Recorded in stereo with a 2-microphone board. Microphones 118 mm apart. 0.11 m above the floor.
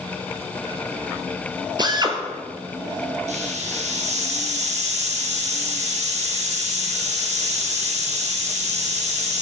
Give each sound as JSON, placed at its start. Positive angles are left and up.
{"t": 1.8, "sound": "a drill", "side_deg": -40, "distance_m": 1.0}
{"t": 3.3, "sound": "a hiss", "side_deg": -75, "distance_m": 2.0}